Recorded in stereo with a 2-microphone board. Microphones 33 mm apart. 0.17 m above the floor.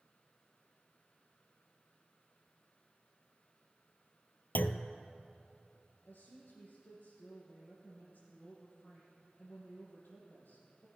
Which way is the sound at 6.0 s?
70° left (ahead or behind).